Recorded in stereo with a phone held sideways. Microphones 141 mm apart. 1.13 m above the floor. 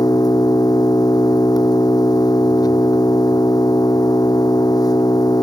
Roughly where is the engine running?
Left.